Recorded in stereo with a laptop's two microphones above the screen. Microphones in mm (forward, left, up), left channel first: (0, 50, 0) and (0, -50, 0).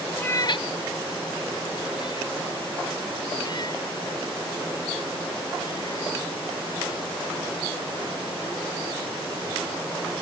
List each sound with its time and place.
0.2 s a cat meowing: 15° left (ahead or behind); by 6.2 s 45° left (ahead or behind)